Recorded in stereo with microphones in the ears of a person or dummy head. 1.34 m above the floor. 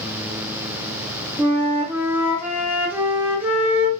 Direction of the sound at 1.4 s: 15° right (ahead or behind).